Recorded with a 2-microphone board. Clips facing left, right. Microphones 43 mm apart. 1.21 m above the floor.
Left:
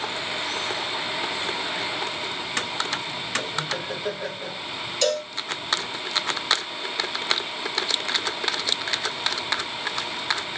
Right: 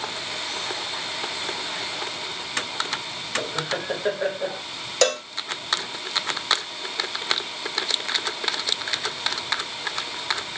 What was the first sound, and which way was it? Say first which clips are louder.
Laughter: right 3 dB; 35° right (ahead or behind).